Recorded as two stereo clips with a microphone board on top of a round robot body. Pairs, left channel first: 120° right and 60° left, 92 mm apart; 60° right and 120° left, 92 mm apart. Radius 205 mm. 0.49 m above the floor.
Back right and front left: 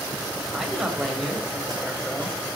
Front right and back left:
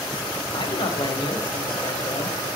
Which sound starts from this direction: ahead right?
A man speaking, at 0.5 s.